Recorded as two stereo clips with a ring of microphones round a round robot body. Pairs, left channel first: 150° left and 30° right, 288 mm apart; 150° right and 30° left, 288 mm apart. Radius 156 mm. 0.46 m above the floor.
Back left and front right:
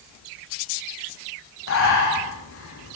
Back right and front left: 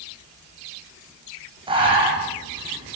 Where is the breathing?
105° left, 5 m.